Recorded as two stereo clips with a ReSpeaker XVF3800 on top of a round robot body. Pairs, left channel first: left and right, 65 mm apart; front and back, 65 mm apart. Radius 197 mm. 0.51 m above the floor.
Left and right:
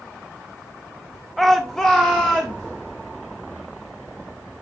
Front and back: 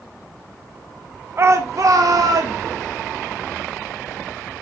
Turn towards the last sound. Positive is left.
turn(degrees=170)